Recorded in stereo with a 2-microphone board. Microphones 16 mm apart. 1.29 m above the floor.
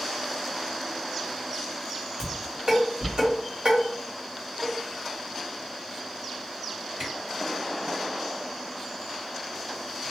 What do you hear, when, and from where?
2.2 s dishes clattering: 75° right (ahead or behind), 1.5 m
4.6 s a cowbell: 40° right (ahead or behind), 1.9 m
7.0 s a camera shutter: 55° right (ahead or behind), 2.0 m